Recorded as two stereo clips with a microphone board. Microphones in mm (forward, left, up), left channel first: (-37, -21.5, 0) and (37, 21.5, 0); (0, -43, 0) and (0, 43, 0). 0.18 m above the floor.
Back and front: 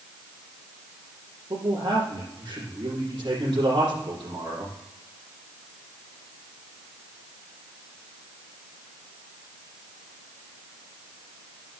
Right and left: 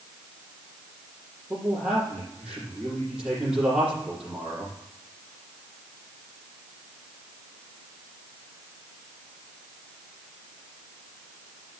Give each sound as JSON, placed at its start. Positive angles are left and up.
{"t": 1.5, "sound": "a man speaking", "azimuth_deg": 10, "distance_m": 6.0}